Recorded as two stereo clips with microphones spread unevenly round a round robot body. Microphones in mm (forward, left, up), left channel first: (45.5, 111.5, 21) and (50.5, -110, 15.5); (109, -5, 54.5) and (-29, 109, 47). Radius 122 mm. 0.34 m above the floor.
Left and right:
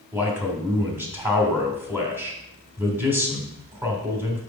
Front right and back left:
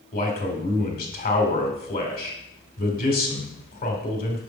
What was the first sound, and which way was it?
A man speaking, 10° right.